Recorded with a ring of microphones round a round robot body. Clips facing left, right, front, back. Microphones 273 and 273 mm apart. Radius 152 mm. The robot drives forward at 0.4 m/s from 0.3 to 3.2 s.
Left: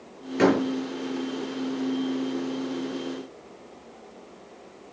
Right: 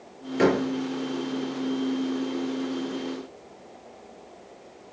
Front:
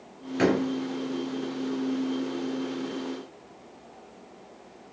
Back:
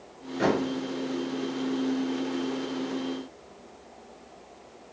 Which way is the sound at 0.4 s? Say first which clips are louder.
Left 1 dB, front 2 dB; 15° left.